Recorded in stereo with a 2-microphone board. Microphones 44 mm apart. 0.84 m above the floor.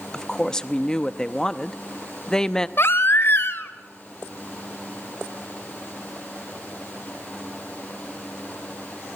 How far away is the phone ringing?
I don't hear a phone ringing.